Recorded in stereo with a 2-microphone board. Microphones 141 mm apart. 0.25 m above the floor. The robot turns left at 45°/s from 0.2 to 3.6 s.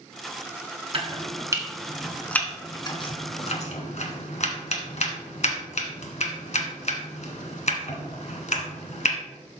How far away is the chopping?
About 1.7 m.